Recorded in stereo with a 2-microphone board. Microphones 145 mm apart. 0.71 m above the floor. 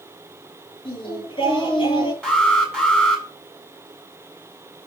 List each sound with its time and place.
0.8 s singing: 35° left (ahead or behind), 6 m
2.2 s an alarm: 5° left (ahead or behind), 7.5 m